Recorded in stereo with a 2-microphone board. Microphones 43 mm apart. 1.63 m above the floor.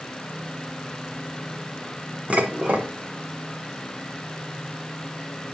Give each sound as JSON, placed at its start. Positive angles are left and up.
{"t": 2.3, "sound": "dishes clattering", "side_deg": -35, "distance_m": 0.9}